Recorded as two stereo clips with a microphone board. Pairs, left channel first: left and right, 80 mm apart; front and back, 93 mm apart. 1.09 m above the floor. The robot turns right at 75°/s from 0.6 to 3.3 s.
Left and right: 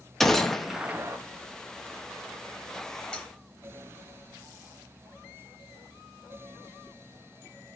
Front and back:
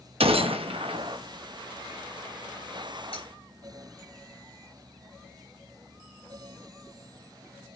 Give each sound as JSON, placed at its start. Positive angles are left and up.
{"t": 0.2, "sound": "a gunshot", "azimuth_deg": 175, "distance_m": 0.9}
{"t": 3.1, "sound": "cutlery clinking", "azimuth_deg": 15, "distance_m": 5.5}